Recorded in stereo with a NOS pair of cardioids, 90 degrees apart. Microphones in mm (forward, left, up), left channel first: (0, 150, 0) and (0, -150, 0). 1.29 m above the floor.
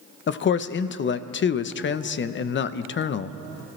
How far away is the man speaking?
About 0.8 m.